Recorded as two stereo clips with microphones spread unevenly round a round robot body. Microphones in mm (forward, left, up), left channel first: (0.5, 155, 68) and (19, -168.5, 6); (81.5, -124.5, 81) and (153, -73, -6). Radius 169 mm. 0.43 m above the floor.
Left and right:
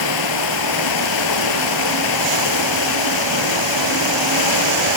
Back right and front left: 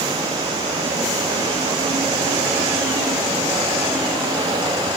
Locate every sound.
0.0 s running water: 110° left, 1.4 m